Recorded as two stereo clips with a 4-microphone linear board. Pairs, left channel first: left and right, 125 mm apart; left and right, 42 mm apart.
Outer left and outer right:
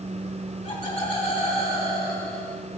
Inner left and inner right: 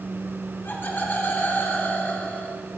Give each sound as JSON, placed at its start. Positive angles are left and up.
{"t": 0.6, "sound": "laughter", "side_deg": 75, "distance_m": 2.5}